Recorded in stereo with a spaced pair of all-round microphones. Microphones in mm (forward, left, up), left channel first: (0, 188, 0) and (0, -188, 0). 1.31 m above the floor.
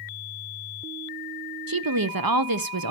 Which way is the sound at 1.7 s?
65° right (ahead or behind).